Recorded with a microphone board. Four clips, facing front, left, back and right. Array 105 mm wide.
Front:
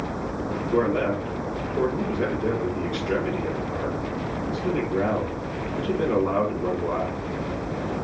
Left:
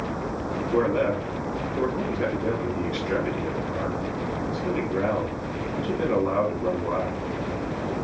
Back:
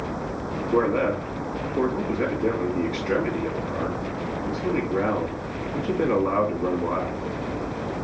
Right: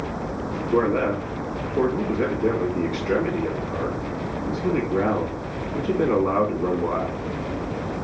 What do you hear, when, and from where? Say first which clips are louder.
0.7 s a man speaking: right 2 dB, back 1 dB; 140° right, 1.3 m